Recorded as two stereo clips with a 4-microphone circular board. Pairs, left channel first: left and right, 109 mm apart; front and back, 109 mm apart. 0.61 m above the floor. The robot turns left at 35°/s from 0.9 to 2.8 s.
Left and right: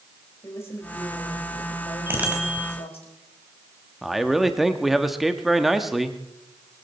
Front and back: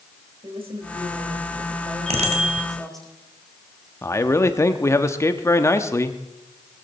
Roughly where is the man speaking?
Ahead.